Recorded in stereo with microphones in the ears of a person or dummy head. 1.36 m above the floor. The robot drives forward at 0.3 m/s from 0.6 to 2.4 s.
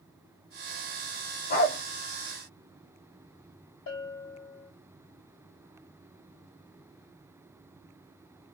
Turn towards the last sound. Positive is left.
turn(degrees=35)  # may be behind; listen again after turning